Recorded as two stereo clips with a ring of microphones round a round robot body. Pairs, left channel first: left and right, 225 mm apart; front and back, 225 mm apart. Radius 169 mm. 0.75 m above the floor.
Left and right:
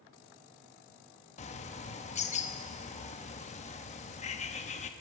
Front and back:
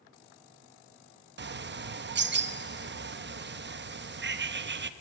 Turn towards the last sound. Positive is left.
turn(degrees=150)